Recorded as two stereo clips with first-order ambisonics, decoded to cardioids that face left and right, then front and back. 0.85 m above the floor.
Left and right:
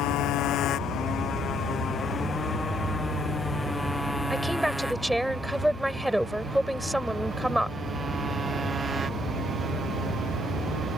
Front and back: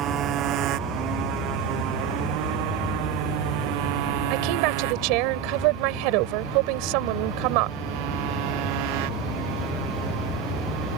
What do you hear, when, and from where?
0.0 s a motorcycle: 130° left; by 11.0 s 160° right
4.3 s a woman speaking: straight behind